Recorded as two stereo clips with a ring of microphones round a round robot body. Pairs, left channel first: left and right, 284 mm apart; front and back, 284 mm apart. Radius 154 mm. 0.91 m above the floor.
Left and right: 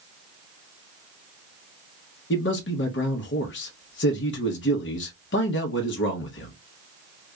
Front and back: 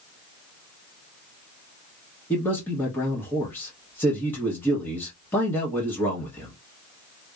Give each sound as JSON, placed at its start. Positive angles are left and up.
{"t": 2.3, "sound": "a man speaking", "azimuth_deg": 80, "distance_m": 0.9}